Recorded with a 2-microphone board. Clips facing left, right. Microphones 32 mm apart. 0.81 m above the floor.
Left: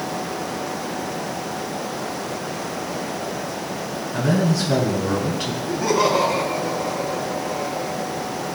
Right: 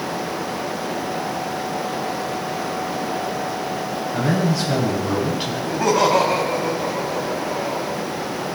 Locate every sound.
4.1 s a man speaking: 15° right (ahead or behind), 9 m
5.6 s laughter: 75° right (ahead or behind), 4 m